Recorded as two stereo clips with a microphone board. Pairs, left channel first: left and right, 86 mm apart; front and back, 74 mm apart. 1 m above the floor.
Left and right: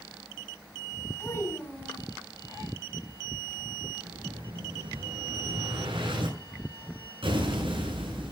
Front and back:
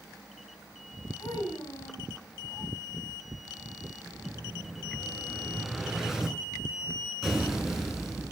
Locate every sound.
1.2 s a child speaking: 25° left, 6 m
4.0 s an explosion: 95° right, 9 m